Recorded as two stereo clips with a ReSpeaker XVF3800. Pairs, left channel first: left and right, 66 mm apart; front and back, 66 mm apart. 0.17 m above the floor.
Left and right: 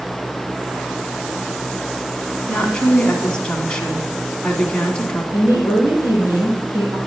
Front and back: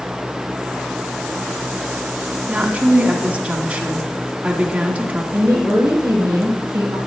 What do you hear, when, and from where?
2.5 s a woman speaking: 150° left, 1.5 m
5.3 s a woman speaking: 130° right, 5 m